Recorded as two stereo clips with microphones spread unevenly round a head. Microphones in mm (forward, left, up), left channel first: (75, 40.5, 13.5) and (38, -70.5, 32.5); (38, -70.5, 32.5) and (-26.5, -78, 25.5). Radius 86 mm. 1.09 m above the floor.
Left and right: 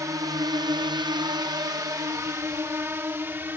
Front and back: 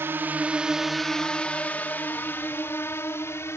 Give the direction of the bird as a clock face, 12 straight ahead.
I don't hear a bird.